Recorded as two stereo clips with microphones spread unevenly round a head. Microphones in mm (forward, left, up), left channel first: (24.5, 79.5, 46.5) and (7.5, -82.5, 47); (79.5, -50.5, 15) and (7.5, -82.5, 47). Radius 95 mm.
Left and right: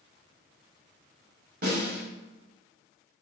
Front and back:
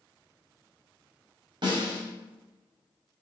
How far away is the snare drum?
About 5.5 m.